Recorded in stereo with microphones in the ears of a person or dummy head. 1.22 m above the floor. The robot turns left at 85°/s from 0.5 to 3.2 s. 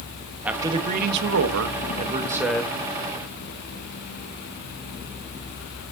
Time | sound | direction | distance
0.5 | a man speaking | 5° right | 1.2 m